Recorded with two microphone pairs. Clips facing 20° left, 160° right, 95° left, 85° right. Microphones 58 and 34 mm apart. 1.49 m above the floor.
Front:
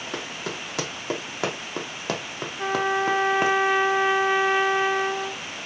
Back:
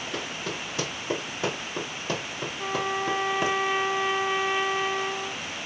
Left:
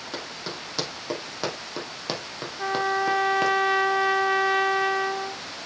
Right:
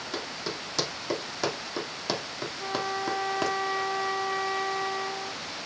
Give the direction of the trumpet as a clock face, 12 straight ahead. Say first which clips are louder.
Front 5 dB, left 7 dB; 10 o'clock.